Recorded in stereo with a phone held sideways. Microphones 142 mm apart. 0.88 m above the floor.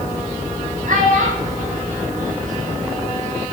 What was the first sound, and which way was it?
A child speaking, 65° right (ahead or behind).